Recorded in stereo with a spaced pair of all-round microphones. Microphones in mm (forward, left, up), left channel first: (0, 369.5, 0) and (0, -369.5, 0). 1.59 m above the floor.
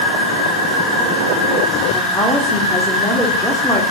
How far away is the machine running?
About 10 m.